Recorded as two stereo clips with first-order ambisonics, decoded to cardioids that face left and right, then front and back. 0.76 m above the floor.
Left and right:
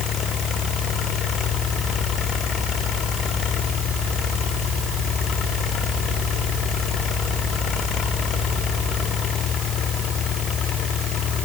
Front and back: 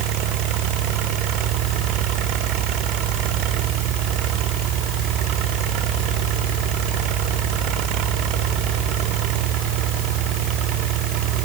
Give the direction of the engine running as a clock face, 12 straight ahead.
7 o'clock.